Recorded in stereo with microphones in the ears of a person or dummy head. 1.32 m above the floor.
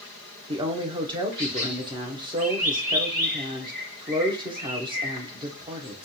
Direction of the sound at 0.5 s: 25° right (ahead or behind).